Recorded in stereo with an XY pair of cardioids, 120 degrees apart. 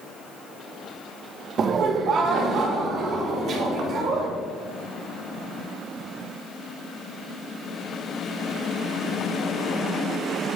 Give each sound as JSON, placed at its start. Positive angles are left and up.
{"t": 1.6, "sound": "laughter", "azimuth_deg": -45, "distance_m": 0.7}